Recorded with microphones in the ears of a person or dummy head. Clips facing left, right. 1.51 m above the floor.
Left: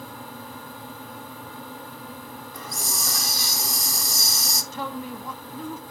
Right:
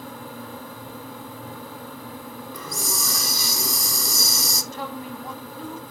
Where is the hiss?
65° right (ahead or behind), 0.7 m.